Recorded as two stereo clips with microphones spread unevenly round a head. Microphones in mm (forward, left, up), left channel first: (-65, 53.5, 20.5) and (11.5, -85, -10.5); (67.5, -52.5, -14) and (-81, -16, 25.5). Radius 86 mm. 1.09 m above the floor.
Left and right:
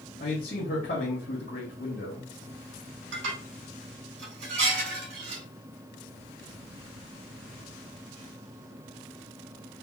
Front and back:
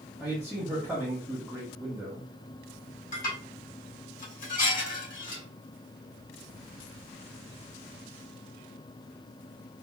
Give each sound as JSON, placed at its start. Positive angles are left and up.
{"t": 0.2, "sound": "a man speaking", "azimuth_deg": 75, "distance_m": 1.2}
{"t": 3.1, "sound": "dishes clattering", "azimuth_deg": -50, "distance_m": 2.5}